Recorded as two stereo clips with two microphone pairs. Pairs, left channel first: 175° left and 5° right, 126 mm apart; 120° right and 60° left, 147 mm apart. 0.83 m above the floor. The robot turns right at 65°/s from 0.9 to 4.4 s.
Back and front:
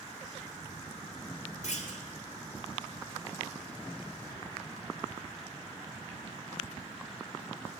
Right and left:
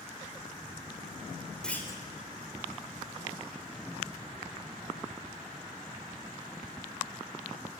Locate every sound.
1.6 s a clunk: 155° left, 3 m; by 2.0 s straight behind, 3 m